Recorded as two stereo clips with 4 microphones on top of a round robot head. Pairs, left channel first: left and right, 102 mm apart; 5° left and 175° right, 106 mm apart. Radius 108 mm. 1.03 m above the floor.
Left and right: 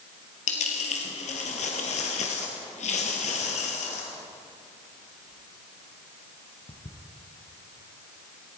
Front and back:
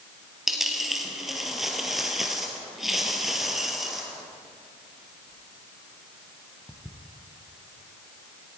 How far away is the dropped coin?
About 2.0 m.